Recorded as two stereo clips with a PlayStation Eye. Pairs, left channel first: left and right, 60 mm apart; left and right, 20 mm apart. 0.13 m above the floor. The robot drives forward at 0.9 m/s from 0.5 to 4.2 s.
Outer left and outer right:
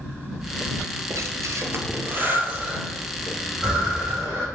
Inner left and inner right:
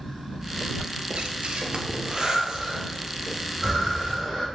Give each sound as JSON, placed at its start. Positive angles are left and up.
{"t": 1.1, "sound": "breathing", "side_deg": -60, "distance_m": 0.8}